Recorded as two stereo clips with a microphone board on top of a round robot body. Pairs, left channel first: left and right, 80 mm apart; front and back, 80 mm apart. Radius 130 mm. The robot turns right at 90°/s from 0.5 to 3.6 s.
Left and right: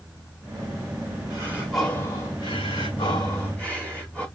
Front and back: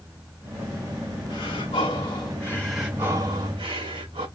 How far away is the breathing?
About 3.5 m.